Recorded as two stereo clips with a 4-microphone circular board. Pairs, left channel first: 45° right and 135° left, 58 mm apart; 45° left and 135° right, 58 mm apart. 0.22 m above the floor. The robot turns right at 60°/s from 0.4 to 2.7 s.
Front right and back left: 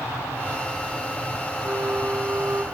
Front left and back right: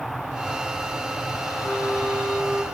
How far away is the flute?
About 1.4 m.